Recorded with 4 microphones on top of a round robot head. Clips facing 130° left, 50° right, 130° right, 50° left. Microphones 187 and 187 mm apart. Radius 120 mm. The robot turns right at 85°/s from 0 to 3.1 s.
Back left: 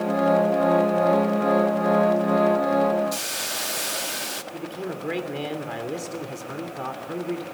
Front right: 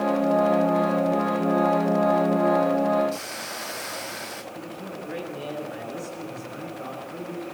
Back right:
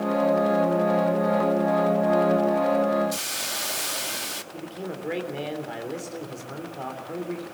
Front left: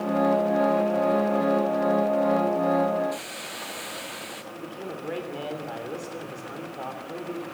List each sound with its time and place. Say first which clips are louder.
3.1 s a hiss: back left 1 dB, back right 1 dB; 175° right, 1.1 m
4.5 s a man speaking: back left 7 dB, back right 2 dB; 155° left, 3 m